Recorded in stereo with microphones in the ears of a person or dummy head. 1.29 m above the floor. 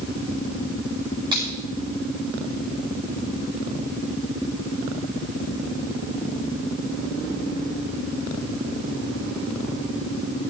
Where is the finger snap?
20° right (ahead or behind), 9.5 m.